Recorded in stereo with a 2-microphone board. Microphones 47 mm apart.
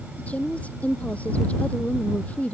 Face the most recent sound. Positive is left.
turn(degrees=30)  # may be behind; listen again after turning